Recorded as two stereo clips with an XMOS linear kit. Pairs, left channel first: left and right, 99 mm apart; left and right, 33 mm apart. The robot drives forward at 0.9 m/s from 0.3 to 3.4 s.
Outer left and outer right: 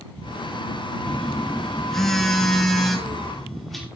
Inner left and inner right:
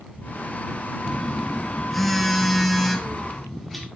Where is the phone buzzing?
10° left (ahead or behind), 0.8 m; by 3.9 s 5° left (ahead or behind), 3 m.